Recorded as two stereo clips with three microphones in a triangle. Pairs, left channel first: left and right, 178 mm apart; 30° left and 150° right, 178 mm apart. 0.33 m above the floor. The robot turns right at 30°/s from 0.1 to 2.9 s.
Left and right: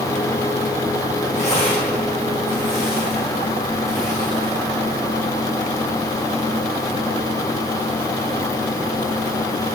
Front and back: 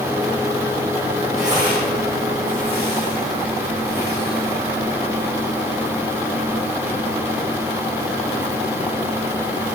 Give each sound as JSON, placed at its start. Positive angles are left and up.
{"t": 1.4, "sound": "tearing paper", "azimuth_deg": 140, "distance_m": 6.5}